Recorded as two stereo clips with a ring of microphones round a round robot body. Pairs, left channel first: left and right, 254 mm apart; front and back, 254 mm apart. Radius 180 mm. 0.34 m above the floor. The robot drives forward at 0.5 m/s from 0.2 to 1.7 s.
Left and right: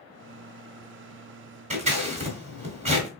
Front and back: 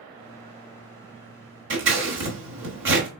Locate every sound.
1.7 s scissors: 150° right, 1.2 m